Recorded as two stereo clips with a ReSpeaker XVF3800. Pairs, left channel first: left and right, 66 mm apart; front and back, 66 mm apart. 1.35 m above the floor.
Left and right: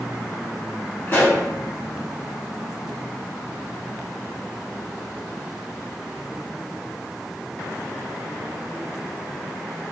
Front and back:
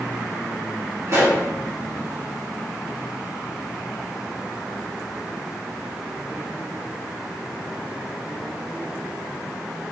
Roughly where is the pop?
Behind left.